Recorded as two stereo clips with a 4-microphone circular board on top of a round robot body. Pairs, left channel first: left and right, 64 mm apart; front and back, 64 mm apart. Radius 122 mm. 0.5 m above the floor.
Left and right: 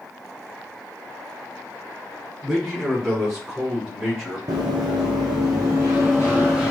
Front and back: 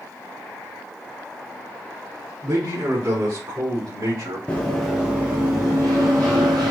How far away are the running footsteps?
About 0.7 m.